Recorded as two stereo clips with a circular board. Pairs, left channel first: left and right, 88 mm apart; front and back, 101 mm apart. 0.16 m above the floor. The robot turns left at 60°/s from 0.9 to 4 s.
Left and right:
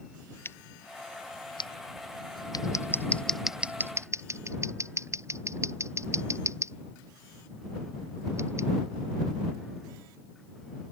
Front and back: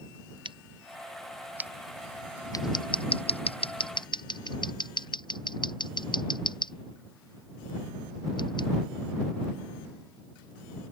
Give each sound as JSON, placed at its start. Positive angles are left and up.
{"t": 0.5, "sound": "scissors", "azimuth_deg": 150}